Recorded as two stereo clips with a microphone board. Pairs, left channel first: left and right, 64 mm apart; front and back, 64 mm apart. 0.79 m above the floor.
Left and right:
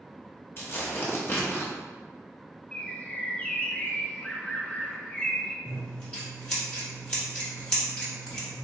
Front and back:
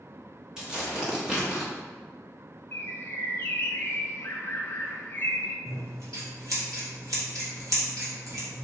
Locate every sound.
0.6 s tearing paper: 110° left, 1.0 m
2.7 s a bird: 35° left, 0.8 m
5.7 s scissors: 165° left, 1.6 m